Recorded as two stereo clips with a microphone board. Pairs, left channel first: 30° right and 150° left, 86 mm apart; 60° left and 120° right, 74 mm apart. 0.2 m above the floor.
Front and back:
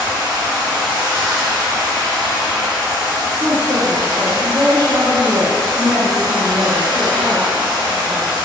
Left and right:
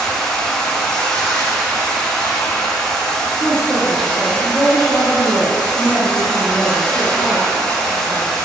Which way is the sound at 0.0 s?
135° left.